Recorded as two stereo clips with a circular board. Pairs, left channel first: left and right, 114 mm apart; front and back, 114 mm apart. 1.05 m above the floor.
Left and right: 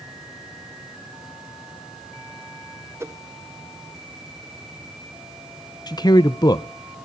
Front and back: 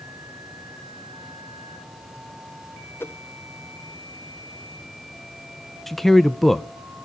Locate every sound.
3.0 s a whoosh: 50° right, 0.7 m
5.9 s a man speaking: 90° left, 0.6 m